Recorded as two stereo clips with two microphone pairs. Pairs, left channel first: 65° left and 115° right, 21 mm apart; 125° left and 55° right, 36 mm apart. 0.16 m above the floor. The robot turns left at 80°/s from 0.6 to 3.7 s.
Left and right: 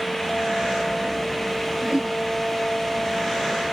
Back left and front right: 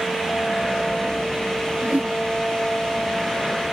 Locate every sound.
1.8 s a whoosh: 70° right; by 2.2 s 100° right